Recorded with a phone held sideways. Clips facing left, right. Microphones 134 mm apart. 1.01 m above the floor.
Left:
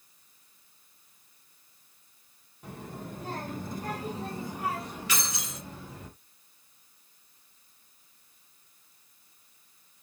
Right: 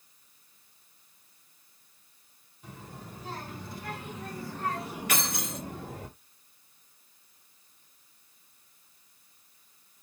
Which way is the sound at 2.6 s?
60° left (ahead or behind).